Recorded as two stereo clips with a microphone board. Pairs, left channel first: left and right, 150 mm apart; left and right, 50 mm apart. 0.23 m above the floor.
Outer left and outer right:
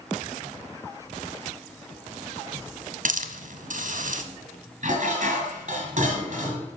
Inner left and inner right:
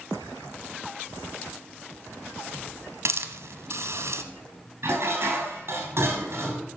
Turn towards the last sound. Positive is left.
turn(degrees=-55)  # may be behind; listen again after turning